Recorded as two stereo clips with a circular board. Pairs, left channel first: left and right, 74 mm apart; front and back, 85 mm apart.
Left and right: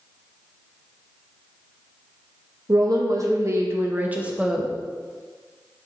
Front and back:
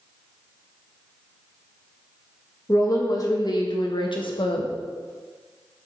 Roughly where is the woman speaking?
Ahead right.